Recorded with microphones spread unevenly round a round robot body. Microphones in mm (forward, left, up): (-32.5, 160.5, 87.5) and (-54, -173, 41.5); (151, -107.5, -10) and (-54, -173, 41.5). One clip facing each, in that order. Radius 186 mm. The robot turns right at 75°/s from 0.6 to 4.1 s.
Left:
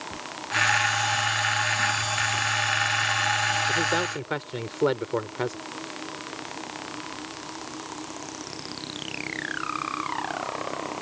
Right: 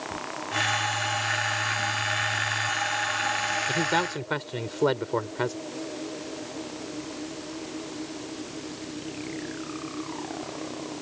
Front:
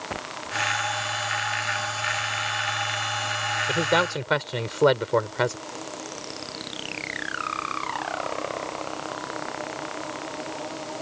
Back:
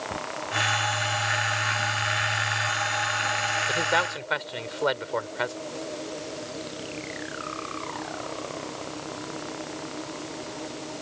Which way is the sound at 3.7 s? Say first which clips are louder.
Right 1 dB, front 6 dB; 40° right.